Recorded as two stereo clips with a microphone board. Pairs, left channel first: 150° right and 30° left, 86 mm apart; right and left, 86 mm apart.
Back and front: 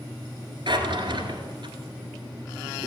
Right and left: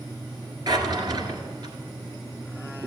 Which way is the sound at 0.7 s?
55° left.